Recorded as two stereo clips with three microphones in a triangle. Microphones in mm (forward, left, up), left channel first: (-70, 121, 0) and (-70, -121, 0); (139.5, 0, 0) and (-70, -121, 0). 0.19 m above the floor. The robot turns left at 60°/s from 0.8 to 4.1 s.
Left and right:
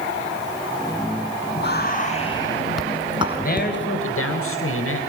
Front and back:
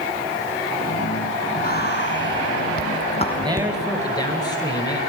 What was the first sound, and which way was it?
Whispering, 70° left.